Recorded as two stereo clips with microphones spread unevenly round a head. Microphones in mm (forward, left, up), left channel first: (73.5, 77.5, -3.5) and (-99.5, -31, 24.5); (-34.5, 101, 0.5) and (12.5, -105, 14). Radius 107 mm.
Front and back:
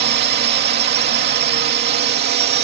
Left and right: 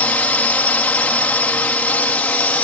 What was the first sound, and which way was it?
A drone, 175° right.